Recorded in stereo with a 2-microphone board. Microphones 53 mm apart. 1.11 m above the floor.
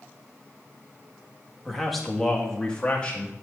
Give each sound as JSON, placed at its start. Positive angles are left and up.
{"t": 1.6, "sound": "a man speaking", "side_deg": -5, "distance_m": 1.8}